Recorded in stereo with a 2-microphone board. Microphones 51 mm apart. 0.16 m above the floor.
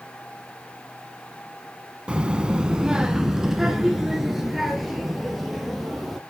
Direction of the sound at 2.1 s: 20° right (ahead or behind).